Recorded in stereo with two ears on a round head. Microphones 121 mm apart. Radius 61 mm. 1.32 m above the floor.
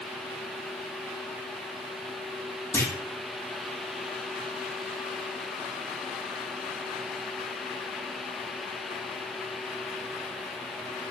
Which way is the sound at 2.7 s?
20° left (ahead or behind).